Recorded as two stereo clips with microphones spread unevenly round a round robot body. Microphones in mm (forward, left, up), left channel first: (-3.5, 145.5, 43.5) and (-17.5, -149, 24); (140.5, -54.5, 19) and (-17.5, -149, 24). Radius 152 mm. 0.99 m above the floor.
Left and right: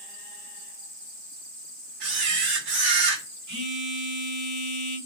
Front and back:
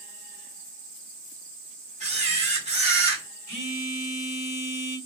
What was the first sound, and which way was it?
A camera shutter, 95° right.